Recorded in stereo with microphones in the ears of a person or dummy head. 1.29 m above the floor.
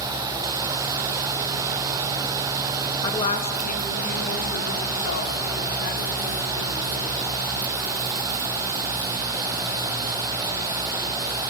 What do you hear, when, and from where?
3.0 s a woman speaking: 20° left (ahead or behind), 2 m; by 7.1 s 75° left (ahead or behind), 6.5 m